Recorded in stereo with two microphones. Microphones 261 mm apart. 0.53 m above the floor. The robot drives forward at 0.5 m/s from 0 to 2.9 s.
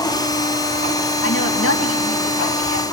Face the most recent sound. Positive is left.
turn(degrees=65)  # may be behind; listen again after turning